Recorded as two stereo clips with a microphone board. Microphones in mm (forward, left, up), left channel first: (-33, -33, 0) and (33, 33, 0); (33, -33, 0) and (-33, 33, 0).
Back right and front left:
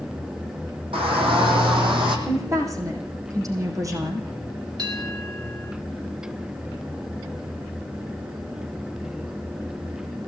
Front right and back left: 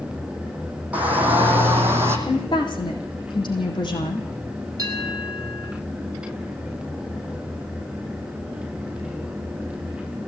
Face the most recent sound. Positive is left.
turn(degrees=85)